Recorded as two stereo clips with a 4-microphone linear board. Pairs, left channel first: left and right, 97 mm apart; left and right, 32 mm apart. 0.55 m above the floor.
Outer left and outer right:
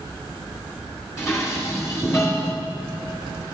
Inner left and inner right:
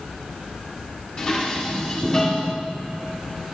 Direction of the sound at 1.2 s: 35° left (ahead or behind).